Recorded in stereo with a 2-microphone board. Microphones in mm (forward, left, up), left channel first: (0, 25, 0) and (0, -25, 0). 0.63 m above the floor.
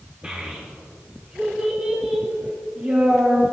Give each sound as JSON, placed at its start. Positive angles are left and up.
{"t": 0.2, "sound": "a child speaking", "side_deg": -25, "distance_m": 1.0}